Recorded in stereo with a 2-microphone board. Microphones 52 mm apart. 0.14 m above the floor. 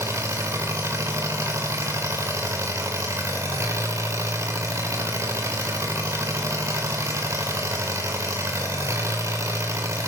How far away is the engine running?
About 4.5 m.